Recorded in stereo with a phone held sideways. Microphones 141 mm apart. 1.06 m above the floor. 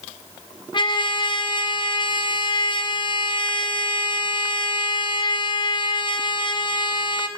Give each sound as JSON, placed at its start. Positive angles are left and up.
{"t": 0.7, "sound": "a trumpet", "side_deg": 35, "distance_m": 0.6}